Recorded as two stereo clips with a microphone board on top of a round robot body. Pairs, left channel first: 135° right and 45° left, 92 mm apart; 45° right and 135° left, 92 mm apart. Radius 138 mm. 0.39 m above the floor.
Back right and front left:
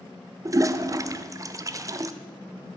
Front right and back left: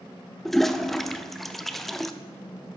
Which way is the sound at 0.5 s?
40° left.